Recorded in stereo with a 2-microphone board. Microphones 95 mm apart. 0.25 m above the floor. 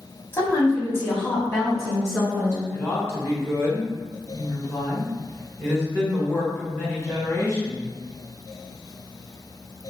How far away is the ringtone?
I don't hear a ringtone.